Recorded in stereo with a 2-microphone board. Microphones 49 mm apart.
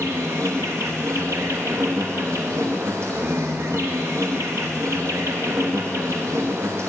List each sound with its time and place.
0.0 s an insect: 85° right, 1.9 m